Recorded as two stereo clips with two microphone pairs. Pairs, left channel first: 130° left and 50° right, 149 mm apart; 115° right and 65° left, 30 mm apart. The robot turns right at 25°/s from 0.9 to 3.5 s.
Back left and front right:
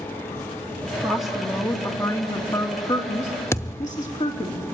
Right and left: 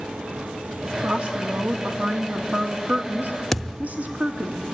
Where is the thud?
165° left, 0.7 m.